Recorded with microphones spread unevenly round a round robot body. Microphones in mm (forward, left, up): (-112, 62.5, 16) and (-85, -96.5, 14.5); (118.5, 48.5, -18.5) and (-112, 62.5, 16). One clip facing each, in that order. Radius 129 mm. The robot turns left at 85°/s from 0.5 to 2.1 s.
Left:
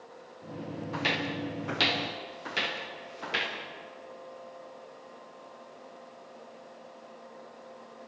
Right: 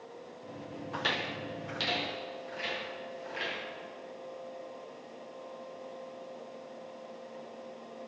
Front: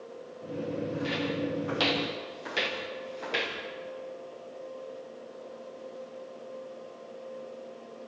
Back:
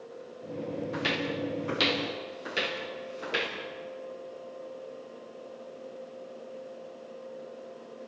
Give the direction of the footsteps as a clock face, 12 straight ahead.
6 o'clock.